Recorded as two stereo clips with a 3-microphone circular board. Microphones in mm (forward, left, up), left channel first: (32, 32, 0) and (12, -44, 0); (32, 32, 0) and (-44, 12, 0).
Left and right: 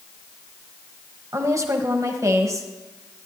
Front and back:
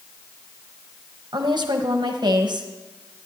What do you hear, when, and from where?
1.3 s a woman speaking: 150° right, 1.1 m